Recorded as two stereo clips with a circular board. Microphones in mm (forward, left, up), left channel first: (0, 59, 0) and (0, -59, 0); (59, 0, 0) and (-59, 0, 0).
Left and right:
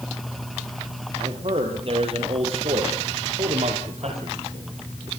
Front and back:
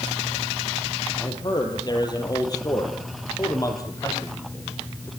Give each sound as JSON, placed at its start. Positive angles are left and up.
{"t": 1.1, "sound": "a man speaking", "azimuth_deg": -50, "distance_m": 5.0}